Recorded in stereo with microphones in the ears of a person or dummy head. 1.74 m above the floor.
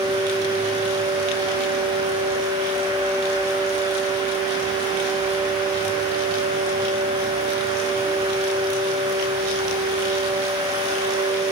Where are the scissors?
No scissors in this recording.